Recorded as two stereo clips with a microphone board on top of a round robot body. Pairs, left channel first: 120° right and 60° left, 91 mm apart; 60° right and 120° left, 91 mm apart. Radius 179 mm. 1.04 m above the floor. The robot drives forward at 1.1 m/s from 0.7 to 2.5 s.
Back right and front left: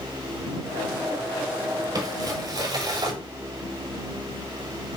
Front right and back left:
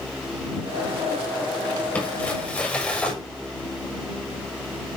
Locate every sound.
1.9 s crumpling: 15° left, 7.5 m